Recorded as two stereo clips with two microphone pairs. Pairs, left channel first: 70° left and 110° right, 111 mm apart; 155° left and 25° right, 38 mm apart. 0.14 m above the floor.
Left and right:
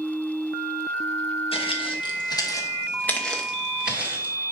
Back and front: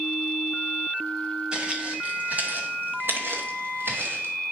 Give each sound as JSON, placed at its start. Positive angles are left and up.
{"t": 1.5, "sound": "footsteps", "azimuth_deg": 45, "distance_m": 2.5}